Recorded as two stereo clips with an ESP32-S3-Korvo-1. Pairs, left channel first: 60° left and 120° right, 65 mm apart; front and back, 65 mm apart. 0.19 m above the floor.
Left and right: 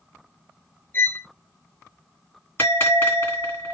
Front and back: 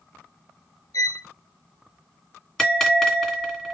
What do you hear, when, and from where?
0.9 s a violin: 5° left, 0.5 m
2.6 s a bell: 80° left, 2 m